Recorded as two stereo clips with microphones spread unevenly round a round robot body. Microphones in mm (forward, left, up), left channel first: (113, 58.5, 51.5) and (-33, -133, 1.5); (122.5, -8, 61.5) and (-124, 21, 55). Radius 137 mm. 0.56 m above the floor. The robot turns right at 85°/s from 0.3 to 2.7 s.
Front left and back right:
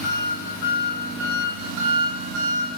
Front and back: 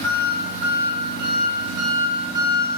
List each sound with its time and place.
0.0 s an engine running: 75° left, 2.5 m; by 2.8 s 80° right, 2.5 m